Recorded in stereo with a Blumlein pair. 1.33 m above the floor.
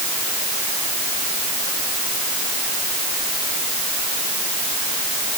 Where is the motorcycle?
I don't hear a motorcycle.